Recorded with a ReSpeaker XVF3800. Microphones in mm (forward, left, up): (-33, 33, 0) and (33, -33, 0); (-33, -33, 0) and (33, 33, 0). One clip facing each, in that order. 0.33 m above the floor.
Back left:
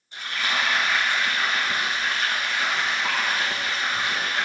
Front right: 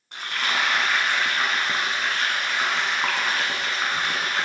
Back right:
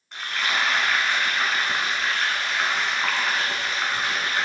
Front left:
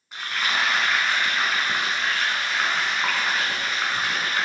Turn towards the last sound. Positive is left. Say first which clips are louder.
# front right 1 dB, even
turn(degrees=-40)